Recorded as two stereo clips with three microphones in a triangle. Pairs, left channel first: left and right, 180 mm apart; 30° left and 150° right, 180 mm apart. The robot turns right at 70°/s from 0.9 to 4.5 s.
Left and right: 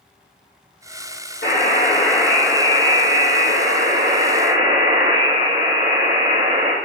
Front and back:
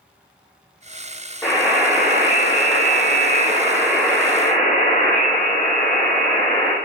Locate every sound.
1.4 s a buzzer: 115° left, 4.5 m; by 6.7 s 30° right, 4.5 m